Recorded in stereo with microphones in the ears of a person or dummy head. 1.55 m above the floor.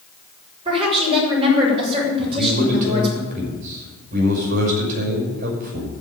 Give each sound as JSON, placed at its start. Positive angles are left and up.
{"t": 0.7, "sound": "a woman speaking", "side_deg": -30, "distance_m": 7.0}
{"t": 2.2, "sound": "a man speaking", "side_deg": -45, "distance_m": 5.5}